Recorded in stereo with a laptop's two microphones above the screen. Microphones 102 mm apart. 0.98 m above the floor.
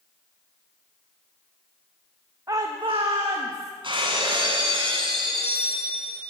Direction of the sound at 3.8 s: 55° right (ahead or behind).